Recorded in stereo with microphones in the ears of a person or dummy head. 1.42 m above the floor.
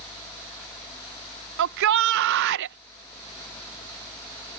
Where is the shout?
70° right (ahead or behind).